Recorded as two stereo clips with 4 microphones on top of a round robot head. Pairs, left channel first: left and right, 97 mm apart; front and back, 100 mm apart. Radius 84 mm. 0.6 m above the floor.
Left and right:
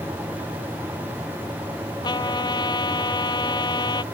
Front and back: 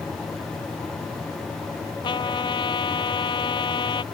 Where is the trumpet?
45° left.